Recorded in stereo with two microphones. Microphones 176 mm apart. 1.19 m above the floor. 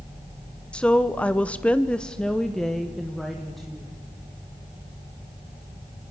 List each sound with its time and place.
0.7 s a woman speaking: 5° left (ahead or behind), 0.9 m; by 3.9 s centre (ahead or behind), 1.8 m